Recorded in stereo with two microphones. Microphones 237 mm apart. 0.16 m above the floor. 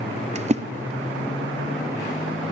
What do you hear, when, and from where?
0.3 s a splash: 30° right (ahead or behind), 0.6 m